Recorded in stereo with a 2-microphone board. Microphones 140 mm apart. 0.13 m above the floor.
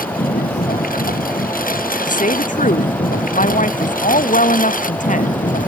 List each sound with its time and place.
0.0 s a lawn mower: 80° left; by 5.7 s 70° left (ahead or behind)
2.0 s a woman speaking: 65° left (ahead or behind)